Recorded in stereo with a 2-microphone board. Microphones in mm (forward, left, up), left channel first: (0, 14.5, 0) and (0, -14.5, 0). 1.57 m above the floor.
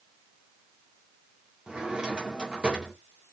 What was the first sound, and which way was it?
A drawer, 30° right (ahead or behind).